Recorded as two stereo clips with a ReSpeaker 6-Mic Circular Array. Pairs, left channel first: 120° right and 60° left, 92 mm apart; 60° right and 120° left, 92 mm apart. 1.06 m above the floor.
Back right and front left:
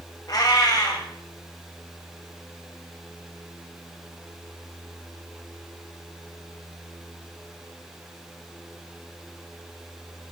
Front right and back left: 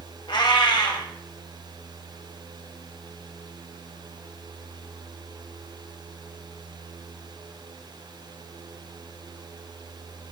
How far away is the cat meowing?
About 1.8 m.